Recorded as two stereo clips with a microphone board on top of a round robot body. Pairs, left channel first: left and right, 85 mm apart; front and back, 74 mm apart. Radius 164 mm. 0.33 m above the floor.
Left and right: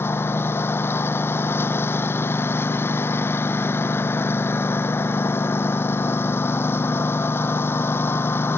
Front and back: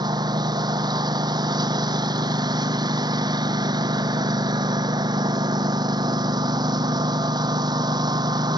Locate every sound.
0.0 s a lawn mower: 155° left